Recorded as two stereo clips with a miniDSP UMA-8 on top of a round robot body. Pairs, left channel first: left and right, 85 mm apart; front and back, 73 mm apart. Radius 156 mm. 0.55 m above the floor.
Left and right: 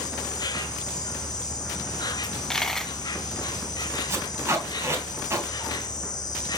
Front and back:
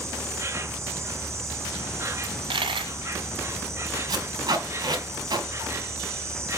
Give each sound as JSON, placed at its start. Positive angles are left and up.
{"t": 0.0, "sound": "an insect", "azimuth_deg": 130, "distance_m": 1.7}
{"t": 2.2, "sound": "a dropped coin", "azimuth_deg": 175, "distance_m": 1.1}
{"t": 4.1, "sound": "tape being pulled", "azimuth_deg": -150, "distance_m": 4.0}